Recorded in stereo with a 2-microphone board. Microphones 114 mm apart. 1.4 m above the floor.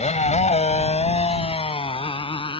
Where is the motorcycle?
75° left (ahead or behind); by 2.6 s 45° left (ahead or behind).